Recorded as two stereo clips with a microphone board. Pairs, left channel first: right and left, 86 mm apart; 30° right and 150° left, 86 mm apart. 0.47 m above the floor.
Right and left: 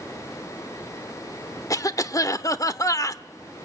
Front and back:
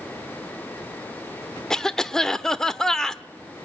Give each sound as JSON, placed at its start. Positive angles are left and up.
{"t": 1.7, "sound": "a cough", "azimuth_deg": -110, "distance_m": 0.9}